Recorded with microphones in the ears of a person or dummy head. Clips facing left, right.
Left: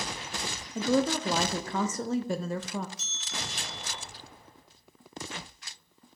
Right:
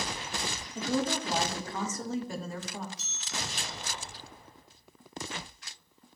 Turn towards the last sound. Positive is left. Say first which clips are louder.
# right 1 dB
turn(degrees=30)  # may be behind; listen again after turning